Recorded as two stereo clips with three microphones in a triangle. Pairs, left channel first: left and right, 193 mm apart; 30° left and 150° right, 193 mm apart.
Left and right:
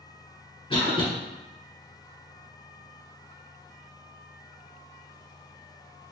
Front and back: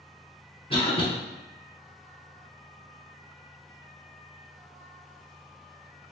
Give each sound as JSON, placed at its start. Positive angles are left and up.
{"t": 0.7, "sound": "a cough", "azimuth_deg": 60, "distance_m": 1.3}